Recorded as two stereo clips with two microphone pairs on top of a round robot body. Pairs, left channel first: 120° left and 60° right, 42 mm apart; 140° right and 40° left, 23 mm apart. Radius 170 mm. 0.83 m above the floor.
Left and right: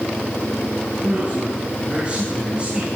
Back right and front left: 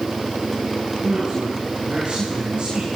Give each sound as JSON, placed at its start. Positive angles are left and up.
{"t": 1.0, "sound": "a man speaking", "azimuth_deg": -5, "distance_m": 10.0}